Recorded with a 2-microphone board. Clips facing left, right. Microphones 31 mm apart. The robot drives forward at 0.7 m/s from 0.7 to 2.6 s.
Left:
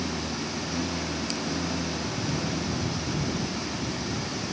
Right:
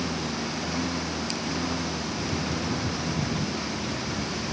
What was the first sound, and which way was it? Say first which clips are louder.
A lawn mower: right 1 dB; 25° right (ahead or behind).